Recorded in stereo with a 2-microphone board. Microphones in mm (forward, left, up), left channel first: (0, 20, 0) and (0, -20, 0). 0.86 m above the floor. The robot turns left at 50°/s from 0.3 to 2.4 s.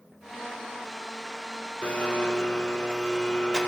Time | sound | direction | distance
1.8 | a blender | 35° left (ahead or behind) | 0.6 m